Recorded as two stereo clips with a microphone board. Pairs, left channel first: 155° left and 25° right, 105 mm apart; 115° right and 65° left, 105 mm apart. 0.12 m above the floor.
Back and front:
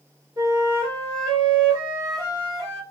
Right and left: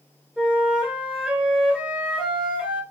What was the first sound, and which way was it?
A flute, 10° right.